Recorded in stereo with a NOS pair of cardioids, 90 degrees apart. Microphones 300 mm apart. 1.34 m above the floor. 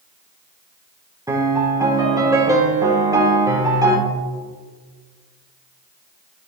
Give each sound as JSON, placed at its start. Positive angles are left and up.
{"t": 1.3, "sound": "a piano", "azimuth_deg": -10, "distance_m": 1.5}